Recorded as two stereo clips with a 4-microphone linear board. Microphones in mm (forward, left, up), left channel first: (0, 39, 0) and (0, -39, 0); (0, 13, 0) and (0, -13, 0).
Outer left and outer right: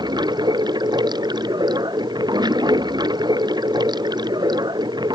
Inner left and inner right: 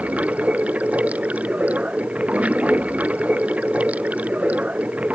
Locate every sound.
0.0 s running water: 65° right (ahead or behind)